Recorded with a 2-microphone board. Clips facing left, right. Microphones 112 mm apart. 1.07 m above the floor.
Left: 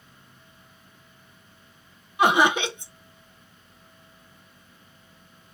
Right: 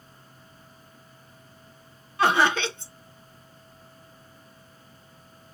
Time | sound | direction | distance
2.2 | laughter | 15° left (ahead or behind) | 0.7 m